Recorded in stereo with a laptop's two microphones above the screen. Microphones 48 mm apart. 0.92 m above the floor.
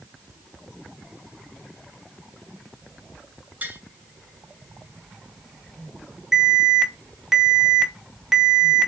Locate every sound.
3.6 s tapping: 35° right (ahead or behind), 2.5 m
6.3 s an alarm: centre (ahead or behind), 0.9 m